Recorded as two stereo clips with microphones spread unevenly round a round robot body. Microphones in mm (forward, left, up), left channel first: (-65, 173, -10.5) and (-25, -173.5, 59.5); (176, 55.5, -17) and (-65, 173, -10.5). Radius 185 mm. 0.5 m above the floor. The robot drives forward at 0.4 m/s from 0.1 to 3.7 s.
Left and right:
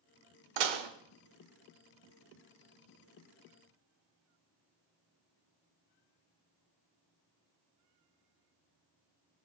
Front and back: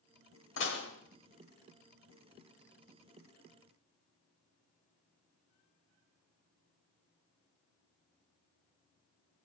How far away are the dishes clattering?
About 1.1 m.